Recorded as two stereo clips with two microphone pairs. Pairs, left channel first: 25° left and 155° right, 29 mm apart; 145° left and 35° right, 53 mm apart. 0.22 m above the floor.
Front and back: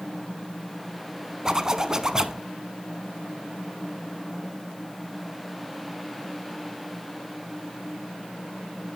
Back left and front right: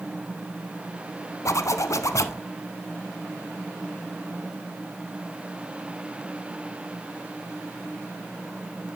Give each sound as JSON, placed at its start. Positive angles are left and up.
{"t": 1.4, "sound": "a zipper", "azimuth_deg": 145, "distance_m": 0.6}